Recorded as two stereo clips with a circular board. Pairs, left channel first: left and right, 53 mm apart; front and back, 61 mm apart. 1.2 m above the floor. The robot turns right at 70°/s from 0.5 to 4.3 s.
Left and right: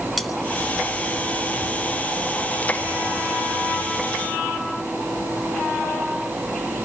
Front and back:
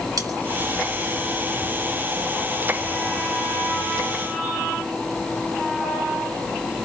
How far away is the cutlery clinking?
About 3 m.